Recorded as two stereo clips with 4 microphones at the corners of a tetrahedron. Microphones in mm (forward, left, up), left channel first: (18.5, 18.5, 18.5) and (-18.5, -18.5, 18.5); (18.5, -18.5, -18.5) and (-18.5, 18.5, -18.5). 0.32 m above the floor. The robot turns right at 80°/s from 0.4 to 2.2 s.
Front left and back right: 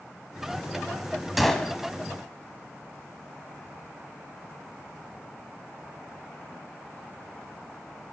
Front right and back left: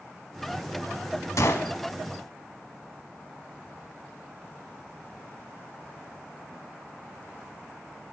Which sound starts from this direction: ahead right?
A gunshot, at 1.4 s.